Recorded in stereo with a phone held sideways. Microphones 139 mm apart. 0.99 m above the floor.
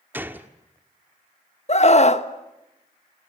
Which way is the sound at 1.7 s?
50° left (ahead or behind).